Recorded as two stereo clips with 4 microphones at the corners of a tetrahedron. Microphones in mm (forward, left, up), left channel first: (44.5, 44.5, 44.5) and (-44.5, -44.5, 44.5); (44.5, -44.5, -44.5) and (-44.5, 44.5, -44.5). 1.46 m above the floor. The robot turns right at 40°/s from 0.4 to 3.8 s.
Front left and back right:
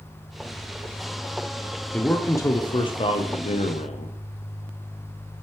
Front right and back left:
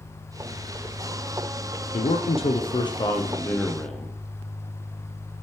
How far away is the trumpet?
I don't hear a trumpet.